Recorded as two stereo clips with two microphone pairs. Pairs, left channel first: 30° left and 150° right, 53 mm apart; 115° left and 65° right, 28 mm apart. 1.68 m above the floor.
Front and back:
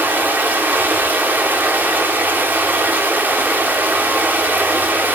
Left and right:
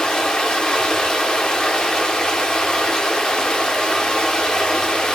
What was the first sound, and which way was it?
Running water, 170° left.